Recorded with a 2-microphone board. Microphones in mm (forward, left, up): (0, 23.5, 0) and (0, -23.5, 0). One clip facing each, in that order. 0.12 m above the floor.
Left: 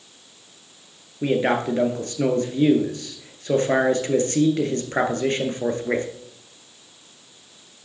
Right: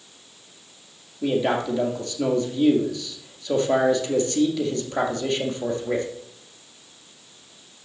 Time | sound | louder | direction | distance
1.2 | a man speaking | left 2 dB | 45° left (ahead or behind) | 1.8 m